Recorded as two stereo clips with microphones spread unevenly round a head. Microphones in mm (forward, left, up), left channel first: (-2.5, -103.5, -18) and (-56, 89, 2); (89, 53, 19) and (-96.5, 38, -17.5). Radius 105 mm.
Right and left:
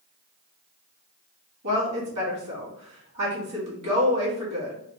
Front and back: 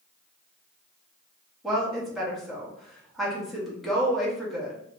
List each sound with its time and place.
1.6 s a woman speaking: 95° left, 1.5 m